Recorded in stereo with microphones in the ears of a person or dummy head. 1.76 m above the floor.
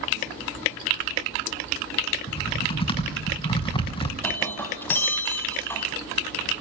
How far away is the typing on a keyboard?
About 4.5 m.